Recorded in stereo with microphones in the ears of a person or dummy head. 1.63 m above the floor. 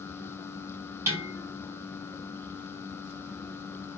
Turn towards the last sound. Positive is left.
turn(degrees=-20)  # may be behind; listen again after turning